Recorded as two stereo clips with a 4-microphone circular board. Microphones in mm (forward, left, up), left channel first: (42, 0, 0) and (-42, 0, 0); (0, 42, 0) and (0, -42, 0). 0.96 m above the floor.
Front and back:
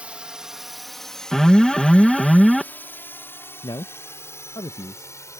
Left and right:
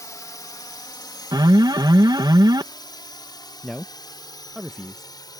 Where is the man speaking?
Straight ahead.